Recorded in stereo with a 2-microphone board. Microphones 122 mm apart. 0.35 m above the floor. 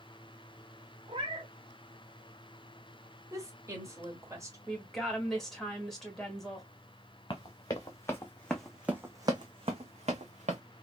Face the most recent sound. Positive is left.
turn(degrees=-75)  # may be behind; listen again after turning